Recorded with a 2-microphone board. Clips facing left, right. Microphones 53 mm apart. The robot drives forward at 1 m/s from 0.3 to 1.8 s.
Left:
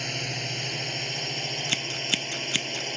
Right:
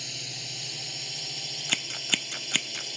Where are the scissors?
15° right (ahead or behind).